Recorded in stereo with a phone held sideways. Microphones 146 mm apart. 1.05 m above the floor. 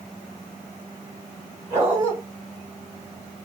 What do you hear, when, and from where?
1.7 s a dog barking: 20° right (ahead or behind), 3.5 m